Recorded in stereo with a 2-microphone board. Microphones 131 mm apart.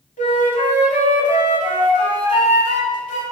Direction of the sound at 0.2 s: 70° left (ahead or behind).